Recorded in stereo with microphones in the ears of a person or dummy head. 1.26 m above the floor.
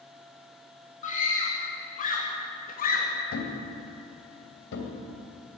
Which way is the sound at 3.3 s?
75° left (ahead or behind).